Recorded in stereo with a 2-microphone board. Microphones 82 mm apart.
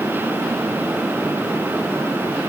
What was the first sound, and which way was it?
Only background noise.